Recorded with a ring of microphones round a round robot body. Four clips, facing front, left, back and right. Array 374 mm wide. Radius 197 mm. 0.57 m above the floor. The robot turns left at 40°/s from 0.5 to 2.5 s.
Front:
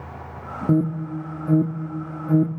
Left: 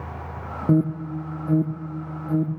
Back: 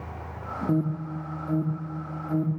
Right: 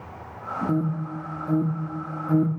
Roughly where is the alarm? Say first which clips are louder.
Left 7 dB, front 6 dB; ahead left.